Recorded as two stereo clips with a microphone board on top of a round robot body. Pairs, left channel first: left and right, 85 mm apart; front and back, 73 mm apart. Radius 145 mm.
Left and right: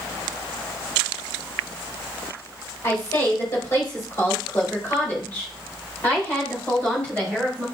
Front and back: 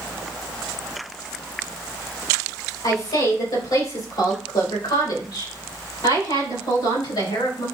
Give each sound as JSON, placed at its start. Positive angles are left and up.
{"t": 2.8, "sound": "a woman speaking", "azimuth_deg": 30, "distance_m": 4.0}